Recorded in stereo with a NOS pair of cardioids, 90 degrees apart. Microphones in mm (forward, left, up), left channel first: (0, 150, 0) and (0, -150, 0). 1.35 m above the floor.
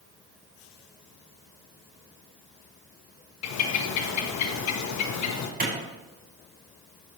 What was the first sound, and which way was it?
A bird, 65° left.